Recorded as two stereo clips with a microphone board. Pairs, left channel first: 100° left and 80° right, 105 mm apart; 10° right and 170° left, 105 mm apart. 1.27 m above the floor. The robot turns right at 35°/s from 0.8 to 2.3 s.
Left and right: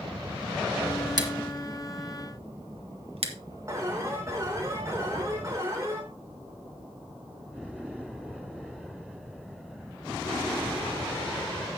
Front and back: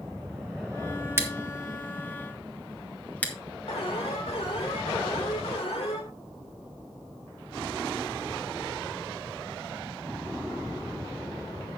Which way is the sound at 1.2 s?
125° right.